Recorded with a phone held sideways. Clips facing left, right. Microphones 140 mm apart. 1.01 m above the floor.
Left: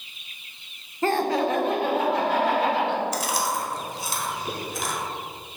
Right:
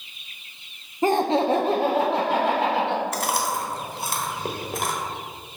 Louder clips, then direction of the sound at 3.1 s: Right 1 dB; 55° right (ahead or behind).